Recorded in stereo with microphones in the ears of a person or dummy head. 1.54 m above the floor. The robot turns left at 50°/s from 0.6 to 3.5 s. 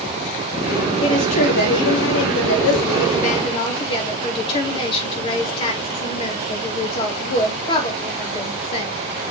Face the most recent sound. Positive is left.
turn(degrees=30)